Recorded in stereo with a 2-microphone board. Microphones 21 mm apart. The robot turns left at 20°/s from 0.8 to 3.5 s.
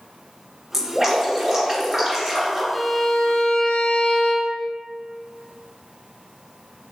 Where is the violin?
60° left (ahead or behind), 0.7 m; by 4.6 s 75° left (ahead or behind), 0.7 m.